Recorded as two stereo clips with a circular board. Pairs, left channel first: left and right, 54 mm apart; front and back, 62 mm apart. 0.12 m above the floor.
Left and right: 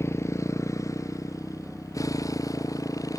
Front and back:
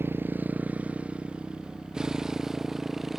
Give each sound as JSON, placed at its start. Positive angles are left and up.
{"t": 0.0, "sound": "a motorcycle", "azimuth_deg": 125}